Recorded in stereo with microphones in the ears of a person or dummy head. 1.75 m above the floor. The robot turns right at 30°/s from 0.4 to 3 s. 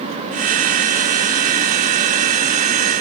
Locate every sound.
Only background noise.